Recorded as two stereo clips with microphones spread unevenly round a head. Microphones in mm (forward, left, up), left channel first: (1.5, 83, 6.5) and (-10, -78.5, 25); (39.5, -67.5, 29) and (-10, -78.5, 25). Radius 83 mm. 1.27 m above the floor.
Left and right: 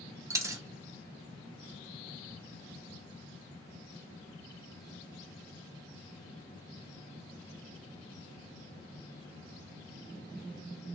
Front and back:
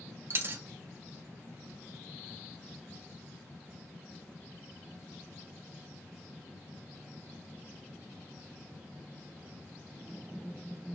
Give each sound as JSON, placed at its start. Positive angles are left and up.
{"t": 0.3, "sound": "a dropped coin", "azimuth_deg": -150, "distance_m": 0.6}